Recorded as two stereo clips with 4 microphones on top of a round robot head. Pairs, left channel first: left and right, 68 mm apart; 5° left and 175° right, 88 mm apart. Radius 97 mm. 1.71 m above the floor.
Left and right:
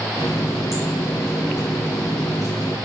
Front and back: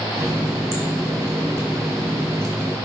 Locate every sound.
0.2 s a running tap: 145° left, 0.7 m